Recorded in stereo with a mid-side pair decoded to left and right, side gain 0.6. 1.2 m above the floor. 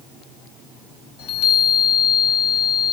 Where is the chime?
70° left, 1.7 m.